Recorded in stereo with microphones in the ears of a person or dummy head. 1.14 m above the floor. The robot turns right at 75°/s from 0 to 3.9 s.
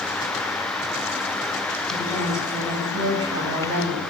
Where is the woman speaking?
150° left, 7.5 m; by 4.0 s 60° right, 7.5 m.